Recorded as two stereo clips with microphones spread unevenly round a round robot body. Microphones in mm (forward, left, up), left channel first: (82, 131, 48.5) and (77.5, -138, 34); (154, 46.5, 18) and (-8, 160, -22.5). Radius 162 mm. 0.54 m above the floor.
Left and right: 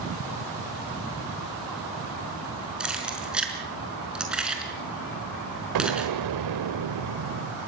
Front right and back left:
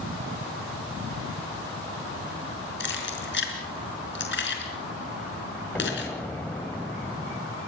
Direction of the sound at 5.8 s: 120° right.